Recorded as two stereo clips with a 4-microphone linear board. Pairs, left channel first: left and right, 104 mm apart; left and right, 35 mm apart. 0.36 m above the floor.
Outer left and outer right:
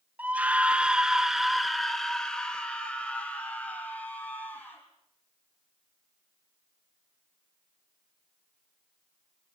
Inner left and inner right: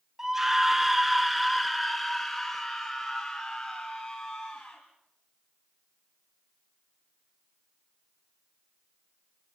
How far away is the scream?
About 1.4 m.